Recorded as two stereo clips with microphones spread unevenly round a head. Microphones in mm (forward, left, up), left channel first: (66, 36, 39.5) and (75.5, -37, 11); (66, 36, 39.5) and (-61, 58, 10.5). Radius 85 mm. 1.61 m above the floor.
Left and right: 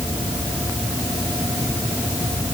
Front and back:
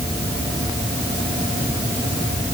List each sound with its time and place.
Only background noise.